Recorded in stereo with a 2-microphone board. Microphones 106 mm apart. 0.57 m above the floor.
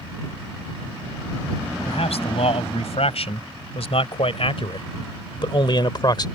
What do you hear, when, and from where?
1.9 s a man speaking: 80° left; by 6.3 s 40° left (ahead or behind)